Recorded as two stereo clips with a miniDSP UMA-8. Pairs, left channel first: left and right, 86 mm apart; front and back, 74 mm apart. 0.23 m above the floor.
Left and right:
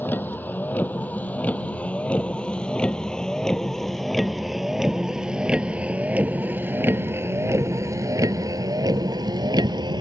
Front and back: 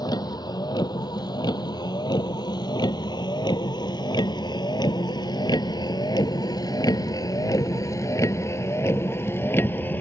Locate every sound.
0.0 s a vehicle: 25° left; by 10.0 s 60° right